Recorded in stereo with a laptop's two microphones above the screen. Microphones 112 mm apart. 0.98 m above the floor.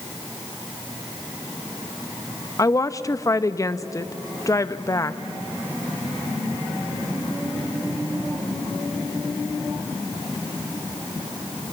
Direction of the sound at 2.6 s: 30° left (ahead or behind).